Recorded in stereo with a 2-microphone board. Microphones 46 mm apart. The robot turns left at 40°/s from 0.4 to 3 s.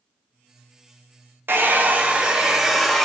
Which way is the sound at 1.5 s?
120° right.